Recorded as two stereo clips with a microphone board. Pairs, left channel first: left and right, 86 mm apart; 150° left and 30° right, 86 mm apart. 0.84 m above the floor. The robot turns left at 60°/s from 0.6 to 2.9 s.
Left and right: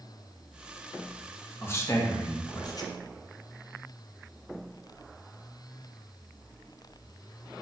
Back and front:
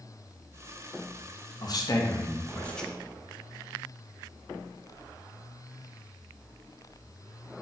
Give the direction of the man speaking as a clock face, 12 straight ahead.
7 o'clock.